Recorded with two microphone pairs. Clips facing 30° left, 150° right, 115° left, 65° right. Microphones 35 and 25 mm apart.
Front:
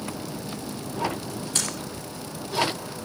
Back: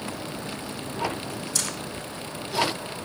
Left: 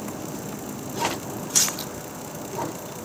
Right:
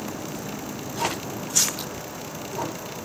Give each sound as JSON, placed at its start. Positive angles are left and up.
{"t": 1.6, "sound": "breathing", "azimuth_deg": 85, "distance_m": 9.5}